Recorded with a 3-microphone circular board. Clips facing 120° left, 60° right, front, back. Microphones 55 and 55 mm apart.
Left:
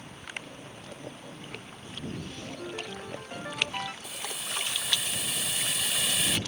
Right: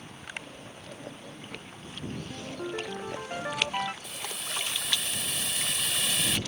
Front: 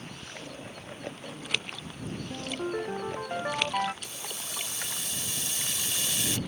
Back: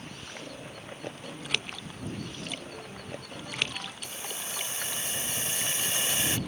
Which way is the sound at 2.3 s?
10° left.